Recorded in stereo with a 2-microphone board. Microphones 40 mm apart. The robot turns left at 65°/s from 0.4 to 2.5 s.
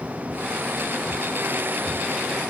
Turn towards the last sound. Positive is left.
No sound to turn to.